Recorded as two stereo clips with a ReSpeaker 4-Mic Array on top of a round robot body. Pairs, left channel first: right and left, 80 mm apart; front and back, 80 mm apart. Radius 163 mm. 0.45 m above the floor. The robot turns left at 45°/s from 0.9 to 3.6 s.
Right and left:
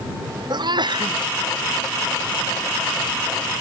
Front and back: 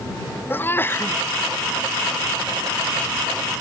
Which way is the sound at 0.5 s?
65° left.